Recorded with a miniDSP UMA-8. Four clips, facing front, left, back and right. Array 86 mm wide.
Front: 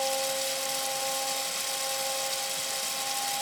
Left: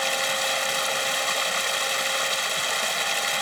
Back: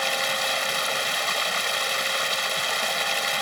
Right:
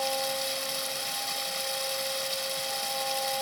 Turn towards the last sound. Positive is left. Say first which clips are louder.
# left 4 dB, back 3 dB
turn(degrees=140)